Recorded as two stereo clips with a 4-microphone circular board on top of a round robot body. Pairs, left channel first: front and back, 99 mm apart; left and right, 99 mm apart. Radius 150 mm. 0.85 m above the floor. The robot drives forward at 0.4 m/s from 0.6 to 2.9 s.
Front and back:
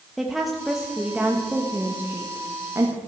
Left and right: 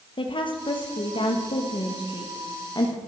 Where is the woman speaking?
90° left, 1.6 m; by 3.0 s 125° left, 1.9 m.